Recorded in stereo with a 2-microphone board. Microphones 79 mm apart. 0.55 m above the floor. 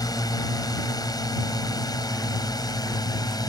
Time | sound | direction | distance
0.0 | a drone | 55° left (ahead or behind) | ?